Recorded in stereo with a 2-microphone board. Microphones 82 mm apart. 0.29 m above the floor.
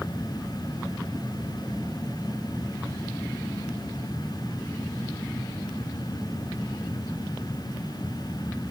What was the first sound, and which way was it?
Only background noise.